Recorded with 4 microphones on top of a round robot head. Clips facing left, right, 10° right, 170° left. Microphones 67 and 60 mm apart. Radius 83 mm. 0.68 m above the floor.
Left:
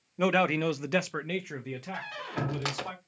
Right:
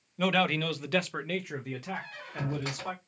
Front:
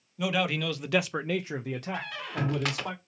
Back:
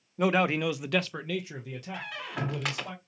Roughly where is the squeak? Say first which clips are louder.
Left 3 dB, front 2 dB; left.